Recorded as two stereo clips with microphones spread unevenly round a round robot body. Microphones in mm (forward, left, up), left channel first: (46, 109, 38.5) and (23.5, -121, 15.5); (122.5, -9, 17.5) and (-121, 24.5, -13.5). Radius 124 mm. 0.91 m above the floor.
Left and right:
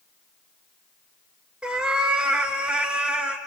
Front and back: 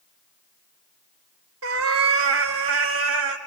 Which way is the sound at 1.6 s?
175° left.